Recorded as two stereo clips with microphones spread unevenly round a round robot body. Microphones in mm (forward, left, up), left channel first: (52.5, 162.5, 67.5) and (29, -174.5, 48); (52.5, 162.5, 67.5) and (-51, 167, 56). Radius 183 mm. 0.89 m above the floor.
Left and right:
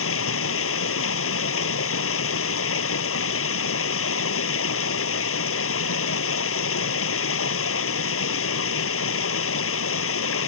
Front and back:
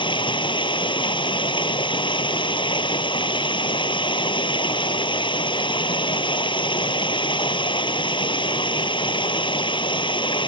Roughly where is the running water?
Ahead left.